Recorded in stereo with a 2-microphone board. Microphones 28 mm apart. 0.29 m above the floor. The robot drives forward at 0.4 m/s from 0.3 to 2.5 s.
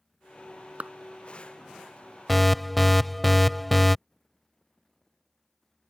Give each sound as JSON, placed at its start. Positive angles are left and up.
{"t": 0.8, "sound": "a clap", "side_deg": -50}
{"t": 2.3, "sound": "an alarm", "side_deg": 5}